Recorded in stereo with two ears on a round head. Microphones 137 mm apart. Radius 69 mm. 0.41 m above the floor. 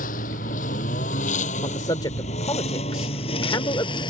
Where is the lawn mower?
60° left (ahead or behind); by 4.1 s 35° left (ahead or behind).